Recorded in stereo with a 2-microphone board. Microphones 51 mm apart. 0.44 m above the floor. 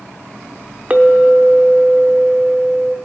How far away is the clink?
About 0.6 m.